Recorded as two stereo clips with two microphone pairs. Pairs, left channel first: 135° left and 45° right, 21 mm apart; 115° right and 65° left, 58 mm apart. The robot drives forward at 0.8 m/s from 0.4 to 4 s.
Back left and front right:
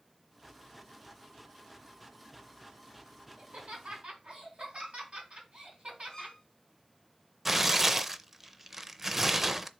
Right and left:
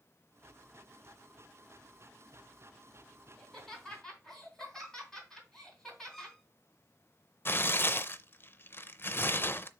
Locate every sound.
3.4 s laughter: 30° right, 4.5 m; by 6.4 s 35° right, 4 m
6.1 s a violin: 165° left, 1.6 m
7.5 s tearing paper: 115° right, 0.5 m